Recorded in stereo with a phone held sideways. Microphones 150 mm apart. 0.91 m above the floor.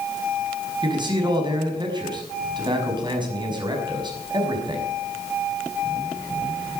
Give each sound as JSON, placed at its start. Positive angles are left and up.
{"t": 0.8, "sound": "a man speaking", "side_deg": -30, "distance_m": 5.5}